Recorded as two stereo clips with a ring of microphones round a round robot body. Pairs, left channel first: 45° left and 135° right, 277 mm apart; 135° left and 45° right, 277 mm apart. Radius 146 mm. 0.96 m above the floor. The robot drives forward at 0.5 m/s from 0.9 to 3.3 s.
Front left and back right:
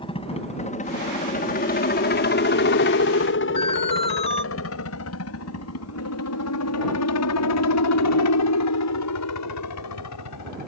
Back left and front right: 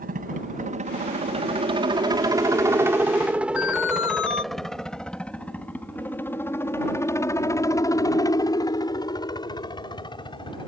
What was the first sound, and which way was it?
A helicopter, 15° right.